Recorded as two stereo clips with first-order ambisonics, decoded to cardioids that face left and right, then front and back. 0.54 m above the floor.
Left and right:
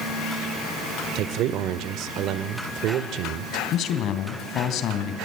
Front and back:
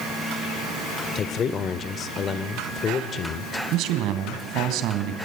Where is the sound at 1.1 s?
60° right, 1.5 m.